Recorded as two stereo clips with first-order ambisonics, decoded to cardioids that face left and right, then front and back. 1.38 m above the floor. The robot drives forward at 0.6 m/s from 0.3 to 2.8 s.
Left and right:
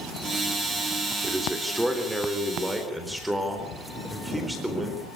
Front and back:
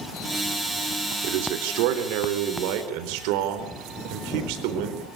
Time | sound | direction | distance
1.2 | a man speaking | 175° right | 3 m